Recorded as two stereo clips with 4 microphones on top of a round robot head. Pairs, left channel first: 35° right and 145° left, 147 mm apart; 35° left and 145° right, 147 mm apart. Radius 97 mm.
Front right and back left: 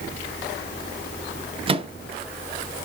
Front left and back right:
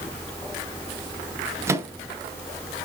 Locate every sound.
1.7 s a microwave: 155° left, 0.6 m